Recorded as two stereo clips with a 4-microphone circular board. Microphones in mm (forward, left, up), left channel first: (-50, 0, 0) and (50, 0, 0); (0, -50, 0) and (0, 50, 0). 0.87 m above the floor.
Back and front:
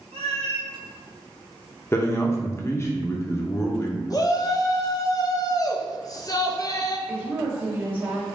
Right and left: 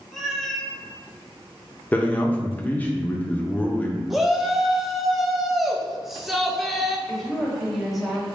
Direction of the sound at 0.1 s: Straight ahead.